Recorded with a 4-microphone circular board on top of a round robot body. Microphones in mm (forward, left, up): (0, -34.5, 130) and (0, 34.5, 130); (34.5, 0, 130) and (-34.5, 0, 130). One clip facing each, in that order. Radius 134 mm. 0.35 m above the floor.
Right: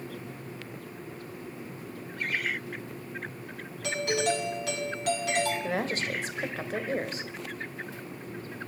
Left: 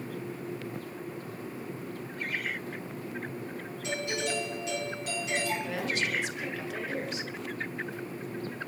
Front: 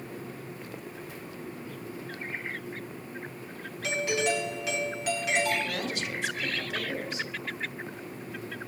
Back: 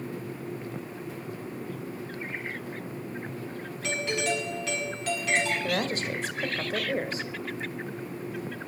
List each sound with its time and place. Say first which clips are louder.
3.8 s a doorbell: right 5 dB, front 1 dB; 80° right, 5.5 m
5.6 s a woman speaking: right 1 dB, back 4 dB; 135° right, 1.8 m